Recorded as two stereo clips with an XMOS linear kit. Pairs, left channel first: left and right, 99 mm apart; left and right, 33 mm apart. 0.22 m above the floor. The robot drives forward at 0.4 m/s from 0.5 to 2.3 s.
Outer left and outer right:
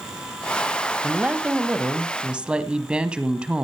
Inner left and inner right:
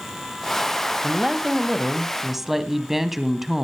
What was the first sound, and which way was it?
A woman speaking, 15° right (ahead or behind).